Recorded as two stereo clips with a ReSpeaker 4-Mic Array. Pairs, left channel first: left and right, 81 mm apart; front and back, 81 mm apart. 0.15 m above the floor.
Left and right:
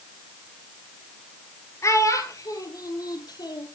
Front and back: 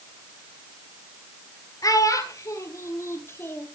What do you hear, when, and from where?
1.8 s a child speaking: 40° left, 2.5 m; by 3.7 s 60° left, 3 m